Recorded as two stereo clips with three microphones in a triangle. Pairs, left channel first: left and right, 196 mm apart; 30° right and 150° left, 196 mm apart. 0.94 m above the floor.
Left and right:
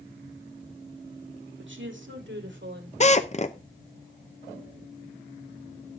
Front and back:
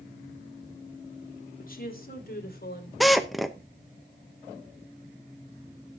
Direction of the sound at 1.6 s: 75° right.